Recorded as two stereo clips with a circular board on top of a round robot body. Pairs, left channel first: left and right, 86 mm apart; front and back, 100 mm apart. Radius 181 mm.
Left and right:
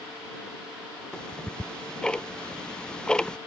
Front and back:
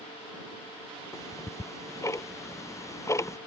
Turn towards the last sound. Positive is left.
turn(degrees=15)